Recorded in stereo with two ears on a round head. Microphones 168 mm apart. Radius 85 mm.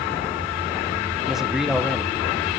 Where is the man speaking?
Centre (ahead or behind), 1.4 m.